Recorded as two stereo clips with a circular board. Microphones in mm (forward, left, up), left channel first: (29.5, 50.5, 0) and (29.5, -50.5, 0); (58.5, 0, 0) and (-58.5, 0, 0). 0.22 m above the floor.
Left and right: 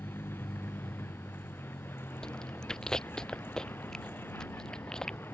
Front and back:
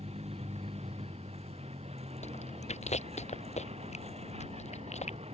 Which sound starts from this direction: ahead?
Chewing, at 2.2 s.